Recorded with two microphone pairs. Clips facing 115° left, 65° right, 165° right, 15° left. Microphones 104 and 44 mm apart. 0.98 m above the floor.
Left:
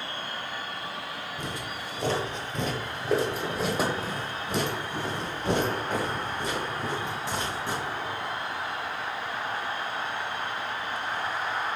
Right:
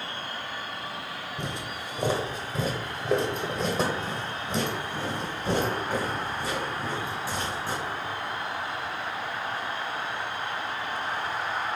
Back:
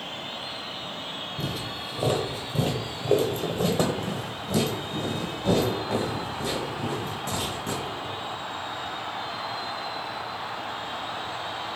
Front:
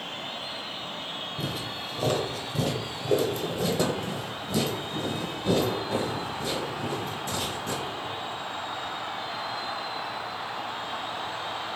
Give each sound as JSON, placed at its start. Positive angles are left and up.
{"t": 1.4, "sound": "footsteps", "azimuth_deg": -45, "distance_m": 1.0}